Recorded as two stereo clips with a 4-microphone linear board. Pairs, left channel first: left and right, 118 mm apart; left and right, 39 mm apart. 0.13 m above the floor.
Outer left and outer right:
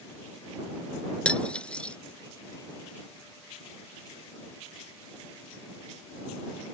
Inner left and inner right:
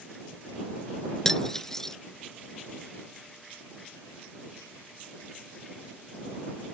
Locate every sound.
1.2 s cutlery clinking: 10° left (ahead or behind)